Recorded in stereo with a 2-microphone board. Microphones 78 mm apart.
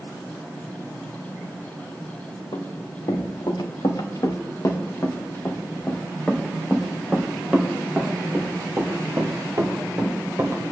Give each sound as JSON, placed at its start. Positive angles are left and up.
{"t": 2.5, "sound": "running footsteps", "side_deg": 65, "distance_m": 3.5}